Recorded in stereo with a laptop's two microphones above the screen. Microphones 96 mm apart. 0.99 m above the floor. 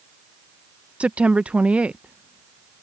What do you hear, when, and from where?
1.0 s a woman speaking: 10° right (ahead or behind)